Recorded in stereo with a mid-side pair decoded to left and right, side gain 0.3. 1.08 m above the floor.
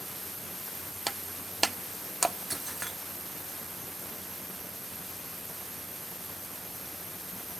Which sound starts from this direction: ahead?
Breaking glass, at 1.1 s.